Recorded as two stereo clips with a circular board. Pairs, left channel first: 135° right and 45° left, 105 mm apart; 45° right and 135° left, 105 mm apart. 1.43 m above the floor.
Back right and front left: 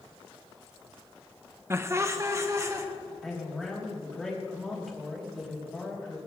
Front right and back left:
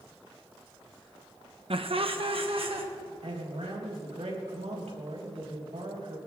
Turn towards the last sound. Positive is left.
turn(degrees=135)